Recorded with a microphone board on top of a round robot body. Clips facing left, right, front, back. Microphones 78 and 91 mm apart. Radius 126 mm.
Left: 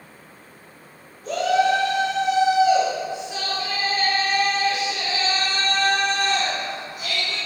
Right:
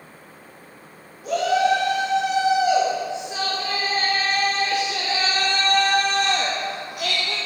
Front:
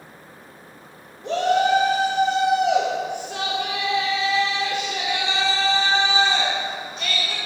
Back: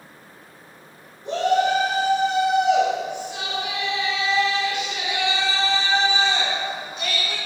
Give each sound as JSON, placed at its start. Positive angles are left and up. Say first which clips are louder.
{"t": 1.2, "sound": "a shout", "louder": "even, front 1 dB", "azimuth_deg": -10, "distance_m": 3.0}